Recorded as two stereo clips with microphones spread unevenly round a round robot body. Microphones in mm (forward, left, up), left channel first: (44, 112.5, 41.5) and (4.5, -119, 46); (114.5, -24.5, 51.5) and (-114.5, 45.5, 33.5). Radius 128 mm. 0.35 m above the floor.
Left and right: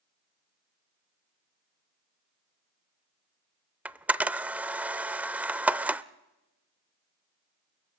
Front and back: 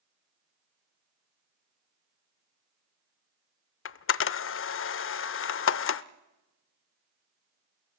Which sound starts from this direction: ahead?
A camera shutter, at 3.9 s.